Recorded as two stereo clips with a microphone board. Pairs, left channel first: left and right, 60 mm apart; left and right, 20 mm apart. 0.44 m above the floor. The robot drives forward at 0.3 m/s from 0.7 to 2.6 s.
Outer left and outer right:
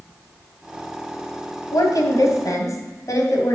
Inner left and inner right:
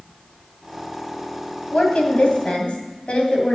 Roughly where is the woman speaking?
Left.